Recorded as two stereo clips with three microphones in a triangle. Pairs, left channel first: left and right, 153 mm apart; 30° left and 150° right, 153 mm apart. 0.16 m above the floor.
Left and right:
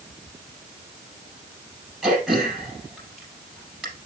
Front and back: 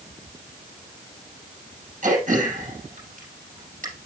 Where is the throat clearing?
175° right, 4 m.